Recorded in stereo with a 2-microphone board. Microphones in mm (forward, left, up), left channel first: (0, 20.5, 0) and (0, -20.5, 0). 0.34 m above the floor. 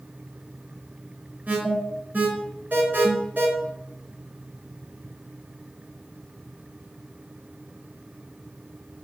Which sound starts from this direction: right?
An alarm, at 1.5 s.